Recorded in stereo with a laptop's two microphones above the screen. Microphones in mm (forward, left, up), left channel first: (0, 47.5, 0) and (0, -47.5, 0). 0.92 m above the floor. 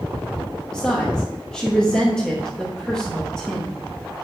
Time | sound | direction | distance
0.7 | a woman speaking | 10° left (ahead or behind) | 1.0 m